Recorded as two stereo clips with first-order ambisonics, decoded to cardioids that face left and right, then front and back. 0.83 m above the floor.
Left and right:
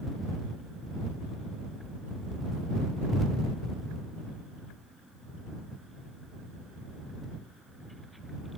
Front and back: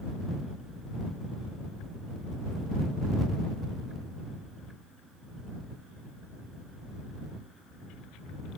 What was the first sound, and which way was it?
Only background noise.